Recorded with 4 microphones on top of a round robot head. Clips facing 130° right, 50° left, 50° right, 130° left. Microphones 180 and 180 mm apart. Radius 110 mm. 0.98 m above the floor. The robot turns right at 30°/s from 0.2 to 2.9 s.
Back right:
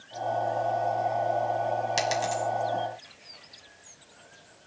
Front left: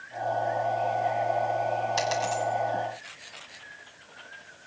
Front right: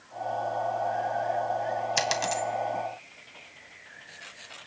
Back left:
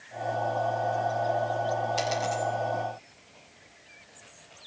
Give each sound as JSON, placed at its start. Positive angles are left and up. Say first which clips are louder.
{"t": 2.0, "sound": "a dropped coin", "louder": "even, back left 1 dB", "azimuth_deg": -60, "distance_m": 1.2}